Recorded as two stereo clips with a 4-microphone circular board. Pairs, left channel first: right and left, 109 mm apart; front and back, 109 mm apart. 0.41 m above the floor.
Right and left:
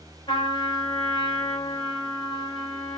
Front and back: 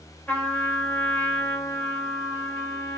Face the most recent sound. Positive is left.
turn(degrees=-75)